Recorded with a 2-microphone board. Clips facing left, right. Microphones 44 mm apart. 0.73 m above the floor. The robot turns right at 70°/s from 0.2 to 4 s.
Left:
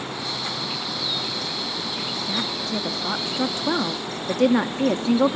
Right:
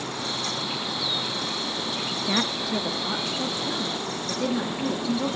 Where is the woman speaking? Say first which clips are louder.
Right 3 dB; 40° right (ahead or behind), 0.7 m; by 5.4 s 60° left (ahead or behind), 0.7 m.